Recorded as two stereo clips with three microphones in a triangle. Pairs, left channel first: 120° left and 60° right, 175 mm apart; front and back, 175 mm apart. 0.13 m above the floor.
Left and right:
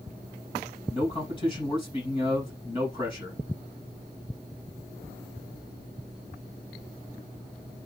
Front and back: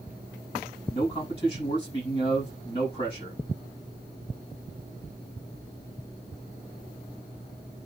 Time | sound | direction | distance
0.9 | a man speaking | 60° left | 5.5 m